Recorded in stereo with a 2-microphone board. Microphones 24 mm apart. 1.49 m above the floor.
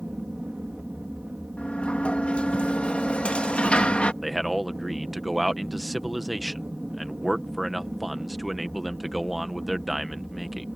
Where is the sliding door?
70° left (ahead or behind).